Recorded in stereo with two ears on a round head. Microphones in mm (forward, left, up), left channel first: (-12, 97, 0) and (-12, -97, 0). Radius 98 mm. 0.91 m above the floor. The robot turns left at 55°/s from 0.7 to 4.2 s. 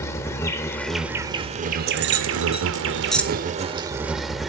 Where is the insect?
15° left, 1.0 m; by 4.5 s straight behind, 1.0 m.